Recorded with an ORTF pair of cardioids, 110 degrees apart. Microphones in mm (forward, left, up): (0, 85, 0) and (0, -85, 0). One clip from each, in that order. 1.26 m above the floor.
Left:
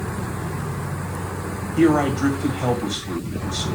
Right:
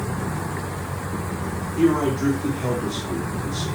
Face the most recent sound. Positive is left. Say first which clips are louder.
# left 2 dB
turn(degrees=50)